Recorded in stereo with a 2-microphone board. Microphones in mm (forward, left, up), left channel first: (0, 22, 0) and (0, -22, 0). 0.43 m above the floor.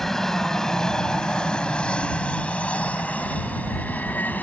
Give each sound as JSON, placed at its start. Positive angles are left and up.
{"t": 0.0, "sound": "an aircraft", "side_deg": 10}